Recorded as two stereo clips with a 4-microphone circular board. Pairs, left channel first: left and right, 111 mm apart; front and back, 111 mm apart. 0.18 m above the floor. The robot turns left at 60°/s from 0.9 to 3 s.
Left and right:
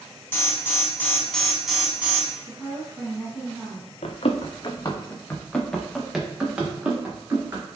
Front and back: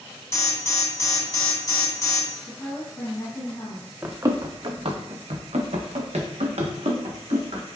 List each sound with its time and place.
0.3 s an alarm: 40° left, 0.8 m; by 2.4 s 50° right, 0.8 m
2.5 s a woman speaking: 30° left, 1.1 m; by 3.9 s 5° right, 1.1 m
4.0 s running footsteps: 110° left, 0.7 m; by 7.6 s 160° right, 1.8 m